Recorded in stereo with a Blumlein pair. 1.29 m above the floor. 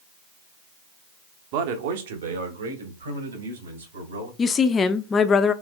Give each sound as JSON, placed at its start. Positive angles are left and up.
{"t": 1.5, "sound": "a man speaking", "azimuth_deg": -45, "distance_m": 0.9}
{"t": 4.4, "sound": "a woman speaking", "azimuth_deg": 20, "distance_m": 0.6}